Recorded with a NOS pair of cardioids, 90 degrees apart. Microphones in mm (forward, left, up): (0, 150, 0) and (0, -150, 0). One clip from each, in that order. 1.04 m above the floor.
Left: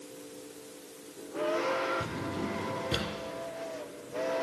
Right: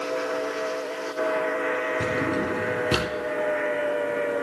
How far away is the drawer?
About 2.0 m.